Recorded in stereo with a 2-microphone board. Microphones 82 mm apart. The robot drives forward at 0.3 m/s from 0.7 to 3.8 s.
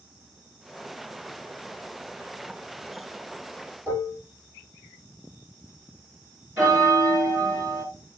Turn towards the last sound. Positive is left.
turn(degrees=-25)  # may be behind; listen again after turning